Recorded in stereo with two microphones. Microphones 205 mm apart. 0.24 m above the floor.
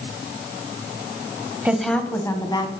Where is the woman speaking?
5° right (ahead or behind), 1.0 m; by 2.7 s 20° left (ahead or behind), 1.8 m.